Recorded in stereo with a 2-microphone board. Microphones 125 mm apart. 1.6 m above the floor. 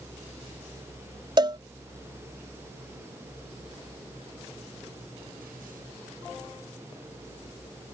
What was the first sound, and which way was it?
A cowbell, 40° right (ahead or behind).